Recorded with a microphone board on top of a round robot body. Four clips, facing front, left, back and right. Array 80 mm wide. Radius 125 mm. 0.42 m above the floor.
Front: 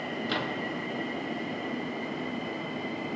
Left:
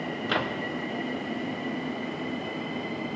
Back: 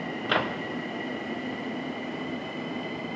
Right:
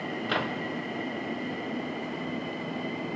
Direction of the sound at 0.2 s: 175° left.